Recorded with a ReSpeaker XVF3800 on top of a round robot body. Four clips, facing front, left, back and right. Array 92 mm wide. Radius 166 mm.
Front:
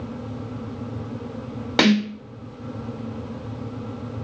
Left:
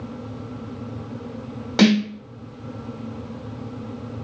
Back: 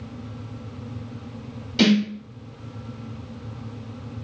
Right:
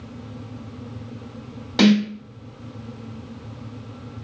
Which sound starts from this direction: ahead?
A snare drum, at 1.8 s.